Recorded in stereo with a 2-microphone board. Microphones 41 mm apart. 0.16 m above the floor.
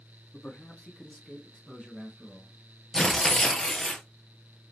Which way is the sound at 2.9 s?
15° left (ahead or behind).